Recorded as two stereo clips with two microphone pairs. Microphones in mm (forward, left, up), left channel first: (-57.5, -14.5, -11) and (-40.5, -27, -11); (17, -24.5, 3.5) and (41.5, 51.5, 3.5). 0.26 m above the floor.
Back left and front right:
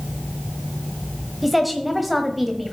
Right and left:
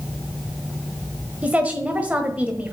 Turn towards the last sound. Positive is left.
turn(degrees=55)